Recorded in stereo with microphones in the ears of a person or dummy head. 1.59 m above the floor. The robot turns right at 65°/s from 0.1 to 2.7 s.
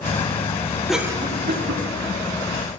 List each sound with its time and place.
0.9 s a cough: centre (ahead or behind), 1.5 m; by 1.9 s 60° right (ahead or behind), 1.5 m